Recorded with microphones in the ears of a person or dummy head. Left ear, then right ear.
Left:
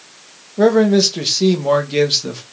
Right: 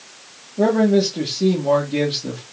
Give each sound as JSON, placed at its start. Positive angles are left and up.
{"t": 0.6, "sound": "a man speaking", "side_deg": 60, "distance_m": 2.0}